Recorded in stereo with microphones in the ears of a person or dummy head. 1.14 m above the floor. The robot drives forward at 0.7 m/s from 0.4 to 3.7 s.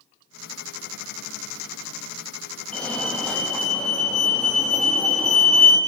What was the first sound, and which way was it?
A fire alarm, 5° left (ahead or behind).